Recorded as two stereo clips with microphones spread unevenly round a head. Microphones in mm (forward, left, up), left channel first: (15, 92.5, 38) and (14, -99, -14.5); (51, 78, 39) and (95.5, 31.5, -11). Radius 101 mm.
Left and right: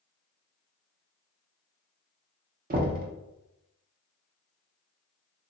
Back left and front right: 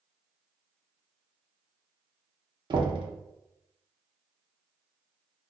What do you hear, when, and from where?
2.7 s knocking: 40° right, 0.6 m